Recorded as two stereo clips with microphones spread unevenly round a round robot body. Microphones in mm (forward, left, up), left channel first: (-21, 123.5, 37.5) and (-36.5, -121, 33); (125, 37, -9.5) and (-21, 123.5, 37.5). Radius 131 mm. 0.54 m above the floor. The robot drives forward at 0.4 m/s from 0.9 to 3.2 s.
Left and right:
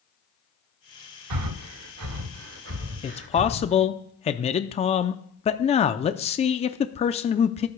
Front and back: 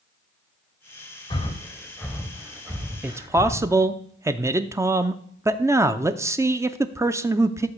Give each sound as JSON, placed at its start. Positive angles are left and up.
{"t": 1.3, "sound": "breathing", "azimuth_deg": -100, "distance_m": 0.8}
{"t": 3.0, "sound": "a man speaking", "azimuth_deg": 50, "distance_m": 0.6}